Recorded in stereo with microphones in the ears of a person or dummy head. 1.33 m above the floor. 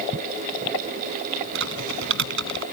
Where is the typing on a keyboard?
60° right (ahead or behind).